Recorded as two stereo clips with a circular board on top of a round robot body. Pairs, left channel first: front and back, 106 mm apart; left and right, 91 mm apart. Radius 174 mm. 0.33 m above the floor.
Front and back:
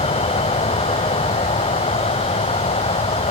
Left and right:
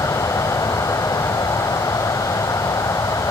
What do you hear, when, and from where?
0.0 s an insect: 30° left